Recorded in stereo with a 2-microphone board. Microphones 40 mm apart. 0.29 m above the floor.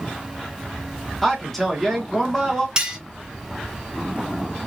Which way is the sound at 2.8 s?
20° right (ahead or behind).